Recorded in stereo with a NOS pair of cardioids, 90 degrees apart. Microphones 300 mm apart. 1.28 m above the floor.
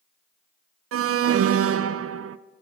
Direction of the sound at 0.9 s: 50° right.